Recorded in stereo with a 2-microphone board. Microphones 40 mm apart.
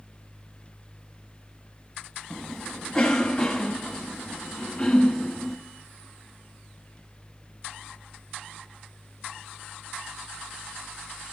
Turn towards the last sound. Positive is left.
turn(degrees=10)  # may be behind; listen again after turning